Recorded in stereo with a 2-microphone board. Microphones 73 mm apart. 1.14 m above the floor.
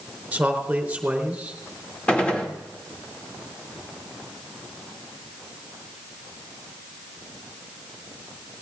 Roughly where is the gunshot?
Centre.